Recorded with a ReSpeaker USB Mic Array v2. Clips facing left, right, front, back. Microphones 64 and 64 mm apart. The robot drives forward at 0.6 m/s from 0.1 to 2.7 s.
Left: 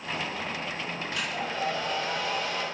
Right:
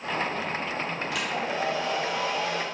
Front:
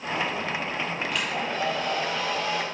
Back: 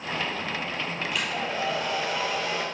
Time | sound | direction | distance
1.1 | a hair dryer | 90° right | 2.5 m